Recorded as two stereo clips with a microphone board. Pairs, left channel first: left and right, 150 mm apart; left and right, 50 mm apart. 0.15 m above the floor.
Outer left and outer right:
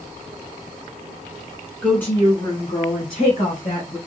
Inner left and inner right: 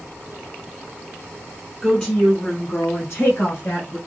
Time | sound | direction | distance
1.8 | a woman speaking | 5° left (ahead or behind) | 1.3 m